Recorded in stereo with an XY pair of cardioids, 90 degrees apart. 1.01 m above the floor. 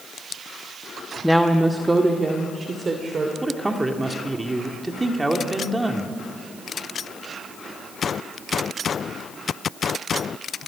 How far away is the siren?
I don't hear a siren.